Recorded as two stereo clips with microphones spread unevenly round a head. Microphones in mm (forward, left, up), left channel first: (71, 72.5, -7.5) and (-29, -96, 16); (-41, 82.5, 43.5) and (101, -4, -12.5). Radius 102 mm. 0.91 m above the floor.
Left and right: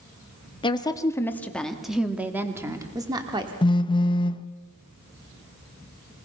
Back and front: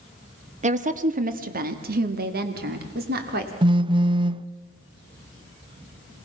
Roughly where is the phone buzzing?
Ahead.